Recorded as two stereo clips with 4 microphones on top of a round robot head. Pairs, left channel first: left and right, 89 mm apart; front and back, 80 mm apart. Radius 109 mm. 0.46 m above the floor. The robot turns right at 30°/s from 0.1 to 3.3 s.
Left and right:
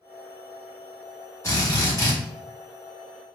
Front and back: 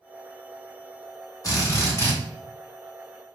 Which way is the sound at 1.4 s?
35° left.